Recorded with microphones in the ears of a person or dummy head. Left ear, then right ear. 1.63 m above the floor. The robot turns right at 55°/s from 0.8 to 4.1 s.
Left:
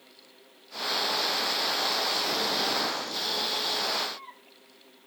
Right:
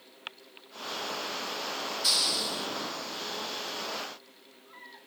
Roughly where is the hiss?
Right.